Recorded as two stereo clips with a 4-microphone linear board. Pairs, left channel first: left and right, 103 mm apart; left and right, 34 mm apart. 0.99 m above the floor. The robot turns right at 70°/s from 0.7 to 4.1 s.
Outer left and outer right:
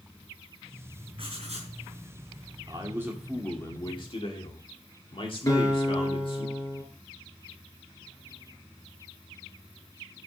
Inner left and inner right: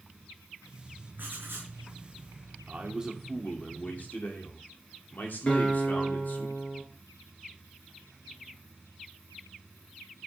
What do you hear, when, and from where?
1.2 s writing: 125° right, 5 m; by 1.7 s 85° right, 5 m
2.7 s a man speaking: 45° right, 2 m; by 6.5 s 55° left, 2 m
5.5 s a guitar: 30° left (ahead or behind), 4.5 m